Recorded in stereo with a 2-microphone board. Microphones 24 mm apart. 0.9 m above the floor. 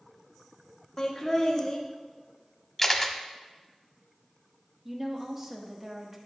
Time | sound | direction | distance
1.0 | laughter | 15° left (ahead or behind) | 1.5 m
2.8 | a camera shutter | 10° left (ahead or behind) | 0.7 m
4.8 | a woman speaking | 20° right (ahead or behind) | 1.1 m